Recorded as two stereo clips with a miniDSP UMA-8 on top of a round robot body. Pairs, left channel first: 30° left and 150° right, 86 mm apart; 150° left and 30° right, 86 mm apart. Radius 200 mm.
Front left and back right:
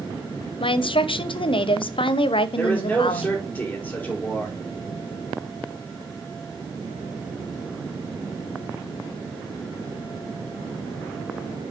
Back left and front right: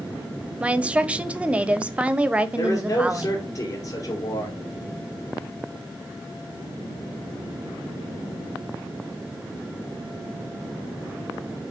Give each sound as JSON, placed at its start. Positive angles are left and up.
{"t": 0.6, "sound": "a woman speaking", "azimuth_deg": 45, "distance_m": 0.5}
{"t": 2.6, "sound": "a man speaking", "azimuth_deg": 100, "distance_m": 2.5}